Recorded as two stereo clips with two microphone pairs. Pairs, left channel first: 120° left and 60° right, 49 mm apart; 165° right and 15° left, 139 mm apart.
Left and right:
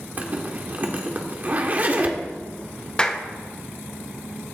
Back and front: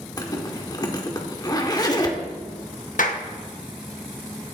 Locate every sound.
0.2 s a zipper: 110° right, 1.7 m
3.0 s a clap: 170° right, 1.4 m